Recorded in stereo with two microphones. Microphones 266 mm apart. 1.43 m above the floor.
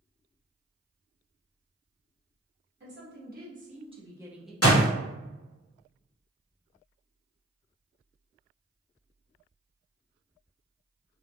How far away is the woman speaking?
About 1.3 m.